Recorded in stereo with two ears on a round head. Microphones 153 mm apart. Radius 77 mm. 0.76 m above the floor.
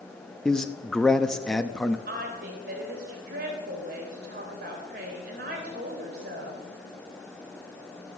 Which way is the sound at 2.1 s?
55° right (ahead or behind).